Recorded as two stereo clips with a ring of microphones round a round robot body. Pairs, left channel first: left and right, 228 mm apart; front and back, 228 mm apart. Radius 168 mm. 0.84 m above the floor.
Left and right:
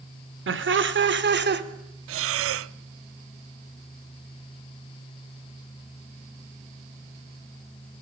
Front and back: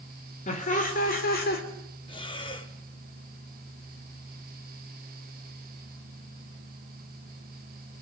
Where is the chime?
I don't hear a chime.